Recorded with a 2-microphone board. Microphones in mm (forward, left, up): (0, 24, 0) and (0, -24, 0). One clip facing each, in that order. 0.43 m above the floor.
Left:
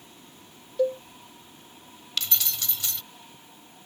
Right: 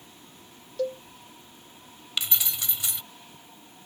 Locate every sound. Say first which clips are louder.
0.8 s a cowbell: left 5 dB; 15° left (ahead or behind)
2.2 s keys jangling: even; 15° right (ahead or behind)